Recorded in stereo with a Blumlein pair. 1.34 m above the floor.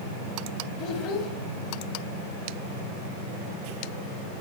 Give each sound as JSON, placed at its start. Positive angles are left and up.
{"t": 0.8, "sound": "a child speaking", "azimuth_deg": 35, "distance_m": 1.4}